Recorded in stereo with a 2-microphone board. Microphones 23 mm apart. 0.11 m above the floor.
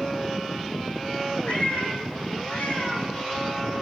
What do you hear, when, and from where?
1.5 s a cat meowing: 60° left (ahead or behind), 1.7 m